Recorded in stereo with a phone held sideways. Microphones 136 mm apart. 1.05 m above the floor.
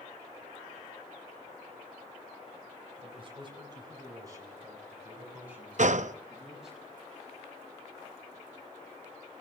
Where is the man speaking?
45° right (ahead or behind), 4.5 m; by 6.8 s centre (ahead or behind), 7.5 m.